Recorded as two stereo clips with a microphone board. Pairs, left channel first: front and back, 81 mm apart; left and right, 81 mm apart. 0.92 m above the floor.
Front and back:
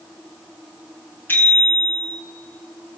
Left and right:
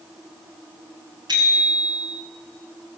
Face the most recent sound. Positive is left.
turn(degrees=-65)